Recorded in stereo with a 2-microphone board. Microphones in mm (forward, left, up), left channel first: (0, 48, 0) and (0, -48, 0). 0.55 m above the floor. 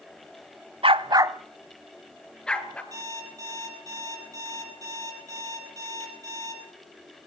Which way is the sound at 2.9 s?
40° right (ahead or behind).